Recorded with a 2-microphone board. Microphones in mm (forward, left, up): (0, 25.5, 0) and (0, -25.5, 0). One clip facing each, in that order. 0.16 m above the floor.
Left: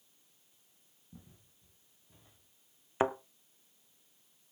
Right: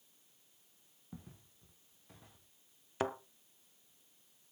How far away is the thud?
About 0.6 m.